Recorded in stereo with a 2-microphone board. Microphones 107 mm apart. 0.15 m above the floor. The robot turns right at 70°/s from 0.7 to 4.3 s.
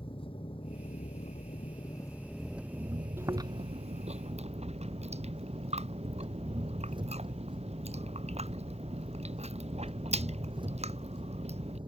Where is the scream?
I don't hear a scream.